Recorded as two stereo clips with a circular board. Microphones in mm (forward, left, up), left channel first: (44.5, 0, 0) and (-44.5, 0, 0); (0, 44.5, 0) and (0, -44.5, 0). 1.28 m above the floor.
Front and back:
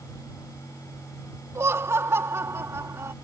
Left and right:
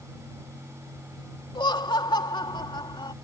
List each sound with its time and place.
1.6 s laughter: 120° left